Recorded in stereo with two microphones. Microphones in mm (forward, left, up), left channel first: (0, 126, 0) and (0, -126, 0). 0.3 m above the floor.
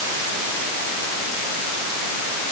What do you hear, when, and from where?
Only background noise.